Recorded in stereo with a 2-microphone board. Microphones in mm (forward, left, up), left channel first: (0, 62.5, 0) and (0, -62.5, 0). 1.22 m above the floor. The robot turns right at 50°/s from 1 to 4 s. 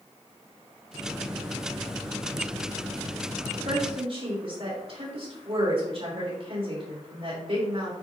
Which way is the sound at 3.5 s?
70° right (ahead or behind).